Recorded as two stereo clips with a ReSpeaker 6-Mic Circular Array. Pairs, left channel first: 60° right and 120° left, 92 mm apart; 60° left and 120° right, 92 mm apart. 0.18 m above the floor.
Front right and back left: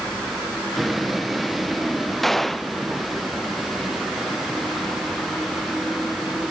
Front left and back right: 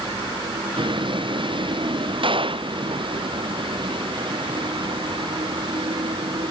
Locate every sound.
0.0 s a vehicle: 150° right
2.2 s a gunshot: 145° right